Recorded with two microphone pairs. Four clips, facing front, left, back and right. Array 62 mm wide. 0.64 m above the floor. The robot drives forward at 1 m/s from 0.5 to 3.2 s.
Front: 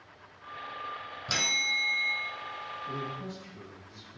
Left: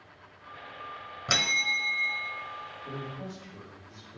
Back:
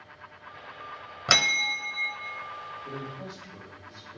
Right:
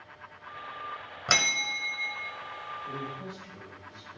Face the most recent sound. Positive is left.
turn(degrees=165)